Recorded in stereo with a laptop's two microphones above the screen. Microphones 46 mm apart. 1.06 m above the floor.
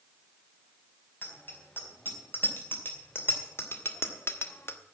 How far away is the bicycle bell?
About 5 m.